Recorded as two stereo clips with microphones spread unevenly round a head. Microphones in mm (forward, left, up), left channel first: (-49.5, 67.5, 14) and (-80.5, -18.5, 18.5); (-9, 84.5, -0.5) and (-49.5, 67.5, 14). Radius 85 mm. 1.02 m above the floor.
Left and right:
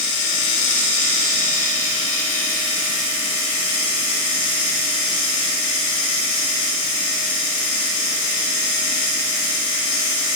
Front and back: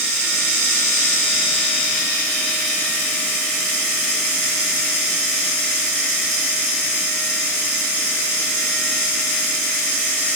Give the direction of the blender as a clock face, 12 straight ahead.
No blender in this recording.